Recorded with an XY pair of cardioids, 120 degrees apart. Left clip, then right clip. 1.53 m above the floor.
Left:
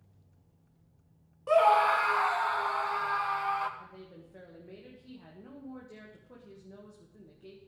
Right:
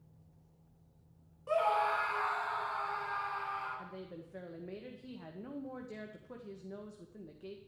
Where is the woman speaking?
35° right, 1.8 m.